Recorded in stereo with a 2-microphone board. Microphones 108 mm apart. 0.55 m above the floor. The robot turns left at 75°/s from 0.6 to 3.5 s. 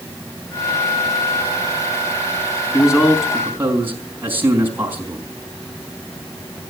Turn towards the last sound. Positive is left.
turn(degrees=-20)